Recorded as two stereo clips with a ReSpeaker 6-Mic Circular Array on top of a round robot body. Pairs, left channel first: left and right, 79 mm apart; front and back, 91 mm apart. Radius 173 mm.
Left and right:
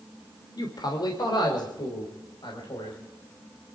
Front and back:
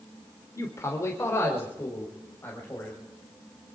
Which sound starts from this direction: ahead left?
A man speaking, at 0.6 s.